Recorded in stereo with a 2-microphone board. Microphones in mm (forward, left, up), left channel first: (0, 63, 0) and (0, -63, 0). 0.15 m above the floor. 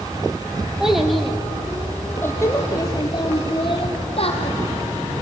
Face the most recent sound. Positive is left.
turn(degrees=55)  # may be behind; listen again after turning